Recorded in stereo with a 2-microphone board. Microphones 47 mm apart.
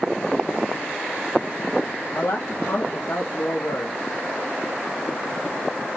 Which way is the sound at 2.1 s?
60° left (ahead or behind).